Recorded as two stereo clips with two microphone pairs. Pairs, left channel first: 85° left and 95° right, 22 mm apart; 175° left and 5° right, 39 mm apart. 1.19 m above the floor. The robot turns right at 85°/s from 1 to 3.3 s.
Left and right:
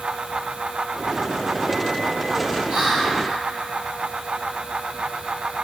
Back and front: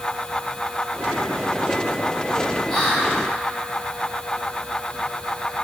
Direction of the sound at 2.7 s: 110° right.